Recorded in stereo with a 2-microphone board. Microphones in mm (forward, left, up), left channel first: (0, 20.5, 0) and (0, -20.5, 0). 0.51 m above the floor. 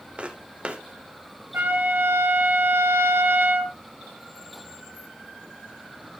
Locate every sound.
0.2 s footsteps: 30° right (ahead or behind), 1.2 m
1.5 s a trumpet: 60° right (ahead or behind), 2 m